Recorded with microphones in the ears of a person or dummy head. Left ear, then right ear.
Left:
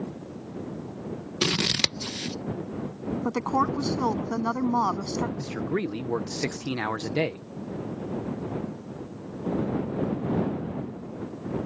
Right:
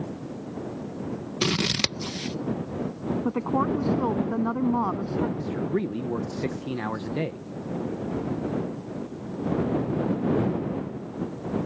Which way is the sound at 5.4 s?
80° left.